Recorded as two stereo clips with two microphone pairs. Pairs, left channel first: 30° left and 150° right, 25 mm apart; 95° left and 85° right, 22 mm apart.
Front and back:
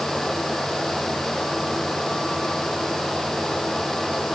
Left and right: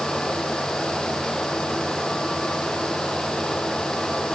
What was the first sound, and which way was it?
Only background noise.